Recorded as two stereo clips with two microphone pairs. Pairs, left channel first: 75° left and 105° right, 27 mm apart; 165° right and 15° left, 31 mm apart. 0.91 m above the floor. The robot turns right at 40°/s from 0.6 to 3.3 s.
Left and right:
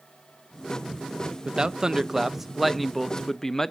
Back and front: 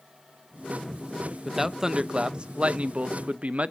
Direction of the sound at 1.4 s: 65° right.